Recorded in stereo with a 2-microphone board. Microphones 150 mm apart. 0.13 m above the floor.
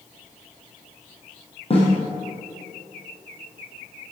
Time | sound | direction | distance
1.7 | a snare drum | 40° left (ahead or behind) | 3.5 m